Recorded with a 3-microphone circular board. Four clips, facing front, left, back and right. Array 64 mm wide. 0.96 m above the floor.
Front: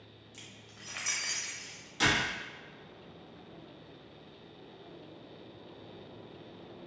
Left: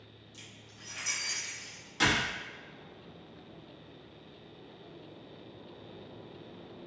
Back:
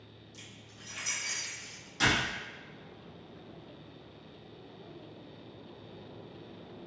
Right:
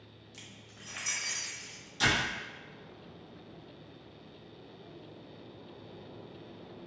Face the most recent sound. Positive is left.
turn(degrees=85)